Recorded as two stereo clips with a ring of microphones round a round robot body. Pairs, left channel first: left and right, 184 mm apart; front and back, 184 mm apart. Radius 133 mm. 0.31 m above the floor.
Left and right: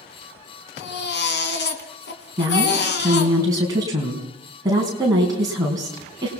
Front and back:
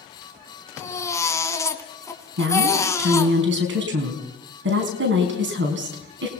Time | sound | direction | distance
0.8 | a baby crying | 75° left | 2.5 m
2.4 | a woman speaking | 165° right | 3.5 m